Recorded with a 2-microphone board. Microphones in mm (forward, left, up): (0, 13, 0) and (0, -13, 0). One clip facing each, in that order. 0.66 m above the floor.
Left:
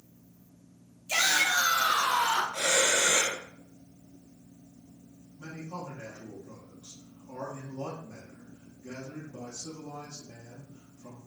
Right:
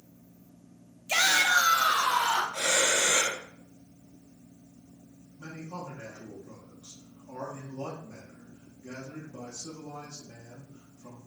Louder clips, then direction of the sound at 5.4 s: Even; 30° right (ahead or behind).